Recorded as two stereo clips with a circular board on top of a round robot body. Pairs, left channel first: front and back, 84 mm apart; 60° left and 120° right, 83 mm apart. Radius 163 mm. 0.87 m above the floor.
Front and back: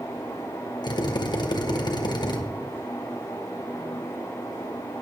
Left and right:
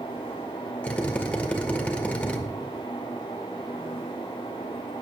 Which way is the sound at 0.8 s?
15° right.